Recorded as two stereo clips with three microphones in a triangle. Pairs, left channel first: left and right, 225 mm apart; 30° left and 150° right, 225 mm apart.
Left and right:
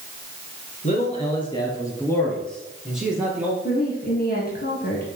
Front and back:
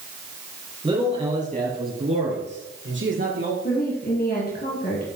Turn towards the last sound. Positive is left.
turn(degrees=60)